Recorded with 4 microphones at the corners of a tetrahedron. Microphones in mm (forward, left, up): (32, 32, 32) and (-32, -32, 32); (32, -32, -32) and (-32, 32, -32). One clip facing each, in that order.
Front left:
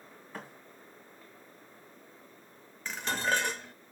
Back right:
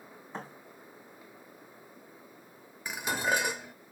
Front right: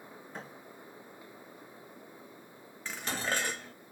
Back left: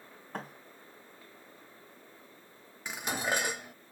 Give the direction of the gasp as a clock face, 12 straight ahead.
No gasp in this recording.